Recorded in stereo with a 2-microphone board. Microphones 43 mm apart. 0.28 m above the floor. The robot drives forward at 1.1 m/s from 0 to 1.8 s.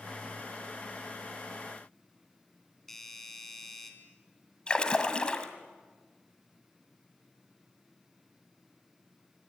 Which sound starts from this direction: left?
A splash, at 4.7 s.